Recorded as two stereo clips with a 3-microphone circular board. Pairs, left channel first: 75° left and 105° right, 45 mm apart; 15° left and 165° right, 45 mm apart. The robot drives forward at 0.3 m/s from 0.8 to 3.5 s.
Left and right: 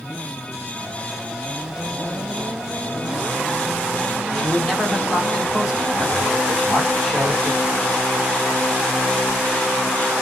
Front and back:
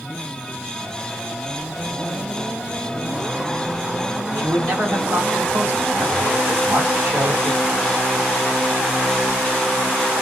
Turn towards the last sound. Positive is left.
turn(degrees=175)